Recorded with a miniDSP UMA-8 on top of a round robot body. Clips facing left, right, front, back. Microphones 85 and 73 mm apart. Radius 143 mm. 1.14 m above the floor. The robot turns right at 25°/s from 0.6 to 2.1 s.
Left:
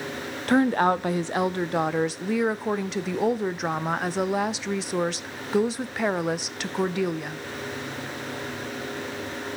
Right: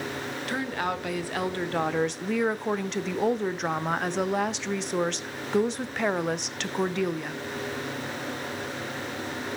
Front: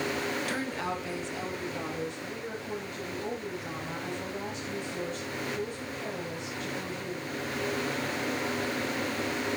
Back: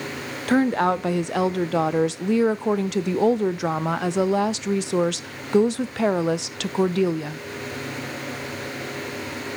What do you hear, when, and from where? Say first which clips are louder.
0.5 s a woman speaking: left 11 dB, back 13 dB; 140° left, 0.6 m; by 7.4 s 175° left, 0.6 m